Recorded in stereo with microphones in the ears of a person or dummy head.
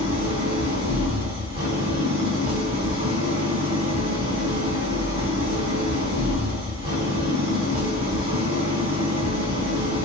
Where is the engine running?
40° right (ahead or behind), 0.8 m.